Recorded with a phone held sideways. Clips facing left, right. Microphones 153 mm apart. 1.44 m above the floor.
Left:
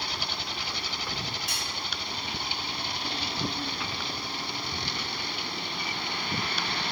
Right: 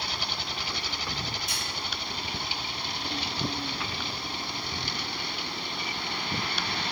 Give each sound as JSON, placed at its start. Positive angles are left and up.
{"t": 1.5, "sound": "cutlery clinking", "side_deg": 80, "distance_m": 4.5}